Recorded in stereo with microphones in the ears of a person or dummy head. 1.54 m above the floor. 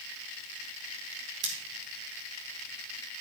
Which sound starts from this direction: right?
Scissors, at 1.4 s.